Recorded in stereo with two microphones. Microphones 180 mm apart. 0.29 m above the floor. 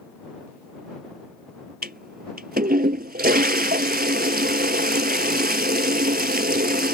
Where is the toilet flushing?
60° right (ahead or behind).